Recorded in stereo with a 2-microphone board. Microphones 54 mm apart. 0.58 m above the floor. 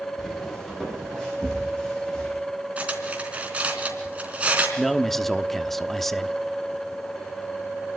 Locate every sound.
0.2 s footsteps: 5° left (ahead or behind), 8.5 m; by 2.3 s 15° left (ahead or behind), 8 m
2.8 s cutlery clinking: 25° right (ahead or behind), 3.5 m
4.8 s a man speaking: 5° left (ahead or behind), 0.9 m